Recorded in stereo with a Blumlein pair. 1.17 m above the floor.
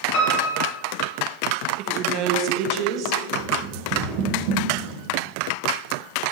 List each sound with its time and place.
0.1 s a piano: 40° left, 2.5 m
1.8 s a woman speaking: 40° right, 1.4 m
3.3 s running footsteps: 45° right, 4 m